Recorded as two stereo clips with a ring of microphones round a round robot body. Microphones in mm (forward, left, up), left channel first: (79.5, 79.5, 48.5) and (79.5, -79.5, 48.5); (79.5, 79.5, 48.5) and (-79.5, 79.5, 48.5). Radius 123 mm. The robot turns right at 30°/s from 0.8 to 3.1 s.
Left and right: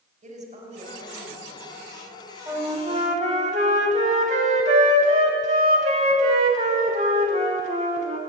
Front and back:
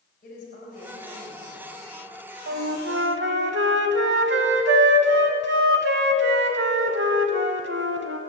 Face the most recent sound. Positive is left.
turn(degrees=-150)